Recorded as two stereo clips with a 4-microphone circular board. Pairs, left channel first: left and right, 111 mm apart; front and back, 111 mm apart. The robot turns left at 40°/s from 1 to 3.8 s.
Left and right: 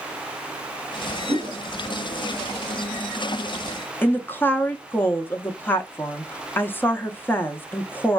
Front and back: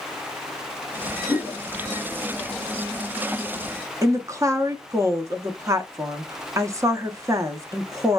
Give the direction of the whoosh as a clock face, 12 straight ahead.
3 o'clock.